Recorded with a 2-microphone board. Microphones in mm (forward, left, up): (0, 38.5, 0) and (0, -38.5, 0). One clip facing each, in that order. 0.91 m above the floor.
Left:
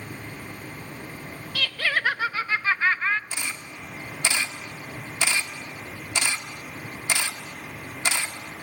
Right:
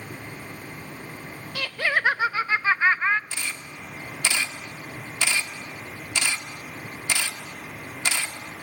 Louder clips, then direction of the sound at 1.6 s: Right 1 dB; 20° right (ahead or behind).